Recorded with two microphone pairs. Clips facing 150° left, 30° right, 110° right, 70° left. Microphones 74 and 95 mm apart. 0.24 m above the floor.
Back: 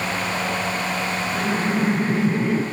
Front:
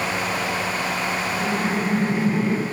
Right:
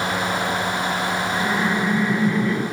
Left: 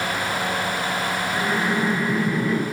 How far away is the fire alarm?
I don't hear a fire alarm.